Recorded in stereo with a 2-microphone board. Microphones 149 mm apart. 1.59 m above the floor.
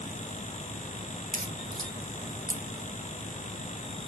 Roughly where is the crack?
Right.